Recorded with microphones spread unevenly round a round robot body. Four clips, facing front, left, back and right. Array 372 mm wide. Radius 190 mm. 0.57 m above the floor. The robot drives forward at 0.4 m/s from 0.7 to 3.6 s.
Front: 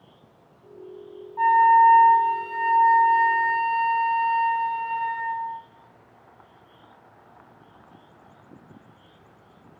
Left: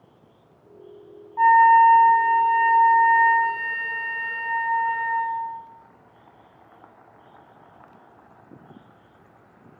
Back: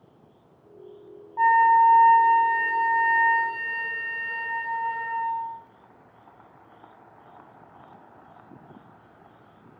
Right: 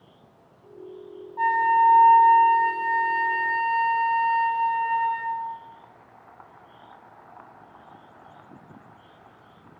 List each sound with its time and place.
1.4 s a flute: 170° left, 0.8 m; by 5.5 s 175° left, 1.7 m